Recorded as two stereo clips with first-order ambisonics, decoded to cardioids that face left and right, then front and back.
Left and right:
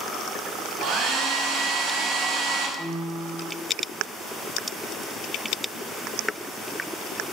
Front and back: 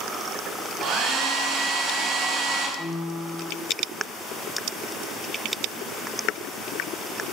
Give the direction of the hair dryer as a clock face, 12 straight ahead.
5 o'clock.